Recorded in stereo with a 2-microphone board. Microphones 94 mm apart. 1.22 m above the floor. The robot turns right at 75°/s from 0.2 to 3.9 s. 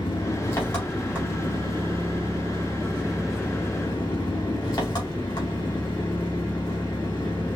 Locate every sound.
0.0 s an engine running: 125° left, 2.5 m; by 7.6 s 45° left, 2.5 m